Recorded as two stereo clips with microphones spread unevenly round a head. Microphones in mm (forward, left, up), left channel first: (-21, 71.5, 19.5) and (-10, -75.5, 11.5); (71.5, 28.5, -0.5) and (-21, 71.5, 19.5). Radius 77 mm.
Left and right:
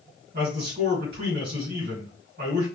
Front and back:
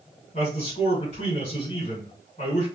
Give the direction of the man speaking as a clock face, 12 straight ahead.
2 o'clock.